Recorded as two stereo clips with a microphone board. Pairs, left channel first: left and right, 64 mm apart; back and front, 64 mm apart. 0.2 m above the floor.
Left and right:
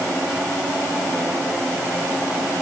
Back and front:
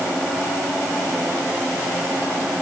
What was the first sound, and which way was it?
Only background noise.